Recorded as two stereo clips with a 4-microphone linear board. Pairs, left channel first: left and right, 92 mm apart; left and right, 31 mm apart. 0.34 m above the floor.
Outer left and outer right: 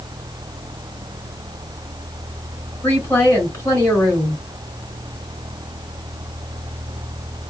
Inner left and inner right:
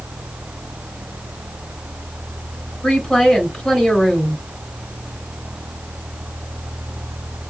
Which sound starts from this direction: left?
A woman speaking, at 2.8 s.